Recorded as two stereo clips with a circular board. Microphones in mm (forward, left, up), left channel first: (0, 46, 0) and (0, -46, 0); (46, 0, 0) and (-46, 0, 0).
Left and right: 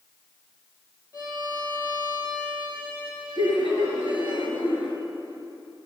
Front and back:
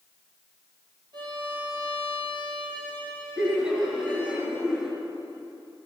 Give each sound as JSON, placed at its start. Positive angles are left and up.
{"t": 1.1, "sound": "a violin", "azimuth_deg": 145, "distance_m": 4.0}
{"t": 3.4, "sound": "laughter", "azimuth_deg": 95, "distance_m": 3.5}